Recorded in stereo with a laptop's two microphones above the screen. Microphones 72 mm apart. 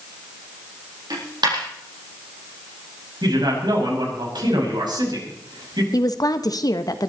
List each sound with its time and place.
1.1 s a dropped coin: 80° right, 6 m
3.2 s a man speaking: 85° right, 6 m
5.9 s a woman speaking: 60° left (ahead or behind), 1.4 m